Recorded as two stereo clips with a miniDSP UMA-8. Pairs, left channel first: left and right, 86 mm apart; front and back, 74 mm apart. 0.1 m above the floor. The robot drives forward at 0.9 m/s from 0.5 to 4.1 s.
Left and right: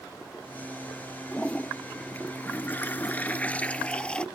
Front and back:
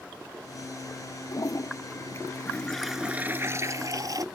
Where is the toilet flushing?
15° left; by 4.2 s 165° left.